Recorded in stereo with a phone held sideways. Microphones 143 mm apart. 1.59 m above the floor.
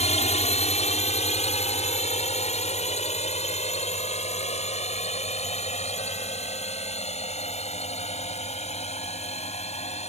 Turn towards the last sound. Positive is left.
turn(degrees=50)  # may be behind; listen again after turning